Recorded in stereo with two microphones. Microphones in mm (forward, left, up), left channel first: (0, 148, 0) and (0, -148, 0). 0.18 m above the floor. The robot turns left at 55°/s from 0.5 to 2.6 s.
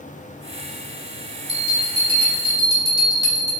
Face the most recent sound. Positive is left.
turn(degrees=-15)  # may be behind; listen again after turning